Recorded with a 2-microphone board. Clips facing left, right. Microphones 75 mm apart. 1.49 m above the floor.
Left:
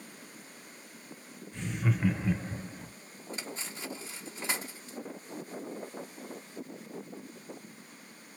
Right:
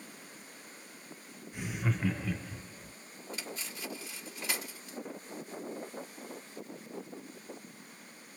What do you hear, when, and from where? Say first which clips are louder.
1.5 s laughter: left 2 dB; 10° right (ahead or behind), 1.3 m; by 2.9 s 60° left (ahead or behind), 0.8 m
3.3 s cutlery clinking: left 2 dB; 30° left (ahead or behind), 1.2 m